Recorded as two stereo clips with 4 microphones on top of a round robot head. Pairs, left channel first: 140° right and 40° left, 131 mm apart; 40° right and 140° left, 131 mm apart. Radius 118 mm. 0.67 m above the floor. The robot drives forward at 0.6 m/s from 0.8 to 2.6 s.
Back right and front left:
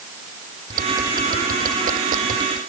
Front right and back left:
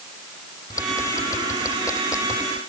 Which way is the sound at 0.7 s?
30° left.